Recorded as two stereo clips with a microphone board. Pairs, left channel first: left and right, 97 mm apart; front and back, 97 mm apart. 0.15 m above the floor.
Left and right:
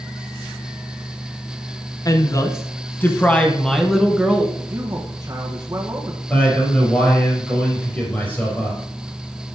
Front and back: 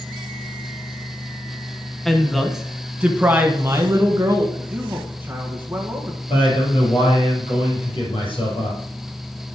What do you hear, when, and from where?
2.0 s a woman speaking: 85° left, 1.3 m; by 4.4 s 165° right, 1.3 m
4.5 s a man speaking: 120° right, 1.7 m
6.3 s a man speaking: 20° left, 4.5 m